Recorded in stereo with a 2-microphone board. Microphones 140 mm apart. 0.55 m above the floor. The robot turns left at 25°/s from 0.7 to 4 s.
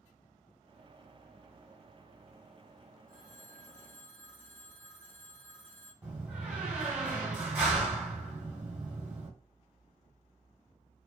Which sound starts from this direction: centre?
A door slam, at 6.0 s.